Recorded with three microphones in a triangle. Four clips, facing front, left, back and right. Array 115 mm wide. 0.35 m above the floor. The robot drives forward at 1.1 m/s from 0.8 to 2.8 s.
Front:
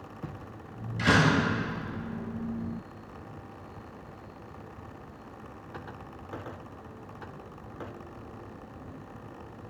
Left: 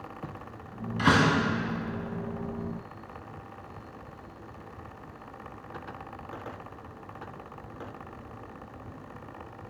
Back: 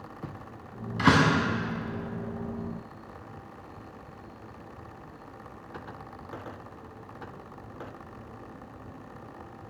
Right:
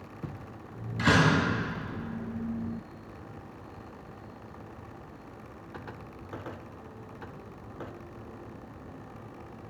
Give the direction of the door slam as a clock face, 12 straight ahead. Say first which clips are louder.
Left 1 dB, back 2 dB; 7 o'clock.